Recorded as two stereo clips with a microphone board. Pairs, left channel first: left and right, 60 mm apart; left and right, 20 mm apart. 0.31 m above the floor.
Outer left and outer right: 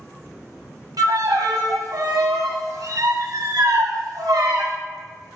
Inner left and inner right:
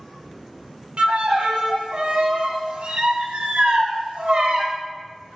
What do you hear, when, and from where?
1.0 s a violin: 75° right (ahead or behind), 0.6 m